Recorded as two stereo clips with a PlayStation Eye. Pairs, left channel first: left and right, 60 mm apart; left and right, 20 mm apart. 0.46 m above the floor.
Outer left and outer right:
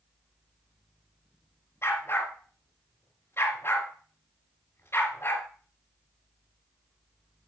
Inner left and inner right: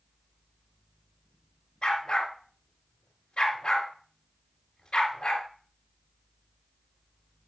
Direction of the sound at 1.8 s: 45° left (ahead or behind).